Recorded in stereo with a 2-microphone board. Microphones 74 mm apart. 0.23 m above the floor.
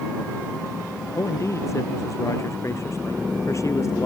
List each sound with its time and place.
1.1 s a man speaking: 40° left (ahead or behind)